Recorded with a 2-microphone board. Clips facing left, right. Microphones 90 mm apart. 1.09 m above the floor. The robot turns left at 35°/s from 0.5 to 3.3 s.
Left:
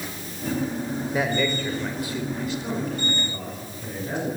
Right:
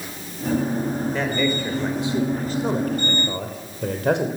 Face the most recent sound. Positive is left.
turn(degrees=-65)